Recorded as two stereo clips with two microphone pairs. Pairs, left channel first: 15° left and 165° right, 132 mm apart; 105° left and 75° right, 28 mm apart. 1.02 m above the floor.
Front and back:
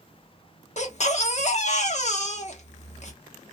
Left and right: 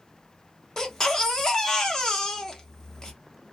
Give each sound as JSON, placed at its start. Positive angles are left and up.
{"t": 0.8, "sound": "a baby crying", "azimuth_deg": 40, "distance_m": 0.8}